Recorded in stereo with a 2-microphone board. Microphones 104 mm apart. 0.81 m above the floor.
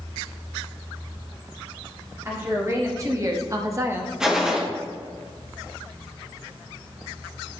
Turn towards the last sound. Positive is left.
turn(degrees=-5)  # may be behind; listen again after turning